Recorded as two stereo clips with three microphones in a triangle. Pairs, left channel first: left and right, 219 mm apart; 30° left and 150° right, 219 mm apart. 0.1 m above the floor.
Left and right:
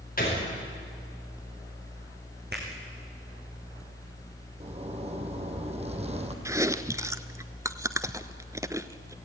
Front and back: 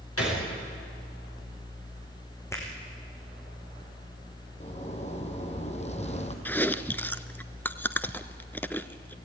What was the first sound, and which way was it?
A gunshot, 40° left.